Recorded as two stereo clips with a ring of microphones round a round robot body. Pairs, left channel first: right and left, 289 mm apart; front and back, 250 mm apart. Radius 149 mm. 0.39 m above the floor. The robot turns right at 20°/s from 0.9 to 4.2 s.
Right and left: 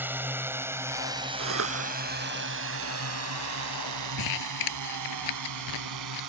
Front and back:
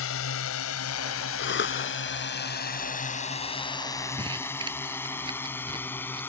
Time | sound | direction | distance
0.0 | a drone | 10° left | ?
1.4 | a cough | 40° left | ?
4.2 | crumpling | 105° right | ?